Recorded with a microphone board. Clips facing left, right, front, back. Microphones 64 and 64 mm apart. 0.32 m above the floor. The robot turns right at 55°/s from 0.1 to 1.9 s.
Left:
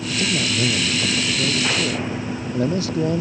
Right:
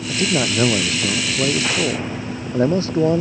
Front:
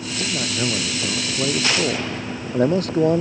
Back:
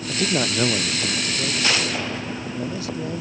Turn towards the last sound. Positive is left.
turn(degrees=-35)